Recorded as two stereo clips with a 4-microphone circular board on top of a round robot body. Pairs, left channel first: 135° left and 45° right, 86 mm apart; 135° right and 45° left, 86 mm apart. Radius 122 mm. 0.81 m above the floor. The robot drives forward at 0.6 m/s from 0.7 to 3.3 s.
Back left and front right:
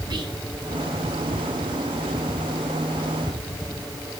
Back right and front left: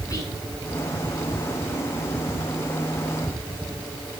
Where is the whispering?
85° right, 7.5 m.